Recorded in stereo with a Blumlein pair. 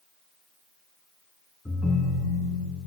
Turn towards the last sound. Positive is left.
turn(degrees=15)